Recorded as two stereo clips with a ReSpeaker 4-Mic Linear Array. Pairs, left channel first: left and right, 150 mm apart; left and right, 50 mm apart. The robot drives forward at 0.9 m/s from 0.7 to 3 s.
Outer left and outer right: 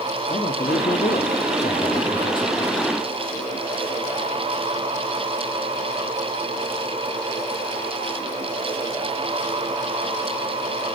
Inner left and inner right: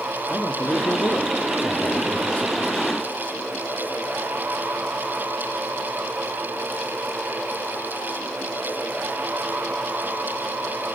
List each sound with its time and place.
0.3 s a man speaking: 60° left (ahead or behind), 1.3 m; by 2.8 s 30° left (ahead or behind), 2 m